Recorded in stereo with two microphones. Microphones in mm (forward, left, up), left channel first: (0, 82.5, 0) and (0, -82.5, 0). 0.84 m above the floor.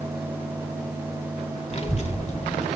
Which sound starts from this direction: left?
A child speaking, at 1.7 s.